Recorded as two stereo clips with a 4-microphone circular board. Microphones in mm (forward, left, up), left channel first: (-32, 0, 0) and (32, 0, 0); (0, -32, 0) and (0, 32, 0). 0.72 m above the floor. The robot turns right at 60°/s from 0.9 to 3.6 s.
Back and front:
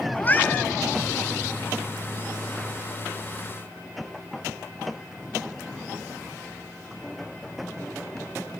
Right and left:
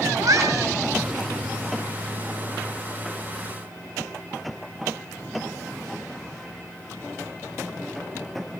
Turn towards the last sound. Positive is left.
turn(degrees=-80)